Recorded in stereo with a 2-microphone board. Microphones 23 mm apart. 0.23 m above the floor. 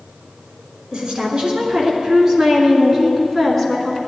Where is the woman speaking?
35° right (ahead or behind), 2.5 m; by 4.0 s 10° left (ahead or behind), 2 m.